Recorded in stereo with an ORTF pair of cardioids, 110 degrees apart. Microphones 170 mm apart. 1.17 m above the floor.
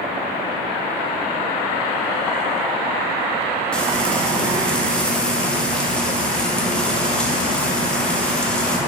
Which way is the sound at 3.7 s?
5° left.